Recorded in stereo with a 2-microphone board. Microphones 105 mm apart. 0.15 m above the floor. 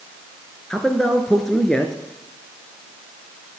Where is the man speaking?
5° left (ahead or behind), 1.7 m.